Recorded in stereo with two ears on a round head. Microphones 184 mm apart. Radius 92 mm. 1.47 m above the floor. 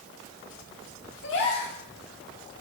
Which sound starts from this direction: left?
A gasp, at 1.2 s.